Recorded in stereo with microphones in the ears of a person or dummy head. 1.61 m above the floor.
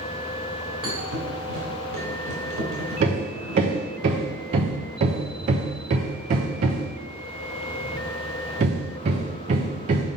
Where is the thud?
65° right (ahead or behind), 2.5 m.